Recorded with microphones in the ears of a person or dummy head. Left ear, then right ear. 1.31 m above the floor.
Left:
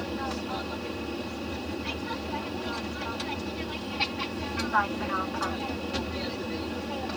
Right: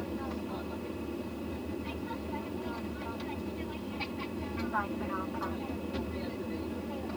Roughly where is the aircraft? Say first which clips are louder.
Left 5 dB; left.